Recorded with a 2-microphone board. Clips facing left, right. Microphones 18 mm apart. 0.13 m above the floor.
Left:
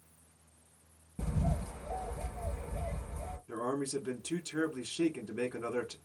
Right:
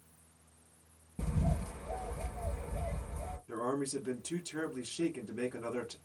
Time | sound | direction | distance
1.2 | a bird | 10° right (ahead or behind) | 2 m
3.5 | a man speaking | 20° left (ahead or behind) | 1.0 m